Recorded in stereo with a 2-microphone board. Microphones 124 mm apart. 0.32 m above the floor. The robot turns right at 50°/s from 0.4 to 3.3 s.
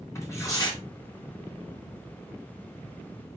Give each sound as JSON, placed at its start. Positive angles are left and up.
{"t": 0.1, "sound": "tearing paper", "side_deg": 25, "distance_m": 3.5}